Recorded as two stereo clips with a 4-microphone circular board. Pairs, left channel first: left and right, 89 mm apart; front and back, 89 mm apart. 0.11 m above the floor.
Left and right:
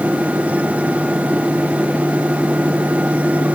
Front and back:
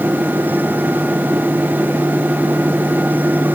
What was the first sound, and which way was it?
Only background noise.